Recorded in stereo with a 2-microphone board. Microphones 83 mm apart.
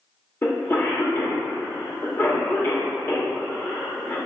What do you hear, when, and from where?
0.4 s a cough: 25° left (ahead or behind), 0.8 m